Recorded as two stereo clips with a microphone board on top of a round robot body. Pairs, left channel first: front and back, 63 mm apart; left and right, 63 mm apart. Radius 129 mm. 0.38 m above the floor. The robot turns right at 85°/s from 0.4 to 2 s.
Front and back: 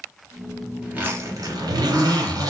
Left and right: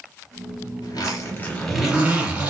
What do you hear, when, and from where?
0.8 s a zipper: 105° left, 3.5 m; by 2.5 s 155° right, 3.5 m